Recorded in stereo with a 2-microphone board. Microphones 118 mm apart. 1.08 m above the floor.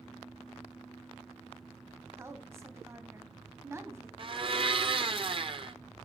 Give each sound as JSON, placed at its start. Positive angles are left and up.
{"t": 2.2, "sound": "a woman speaking", "side_deg": -20, "distance_m": 1.0}
{"t": 4.2, "sound": "a blender", "side_deg": -45, "distance_m": 0.7}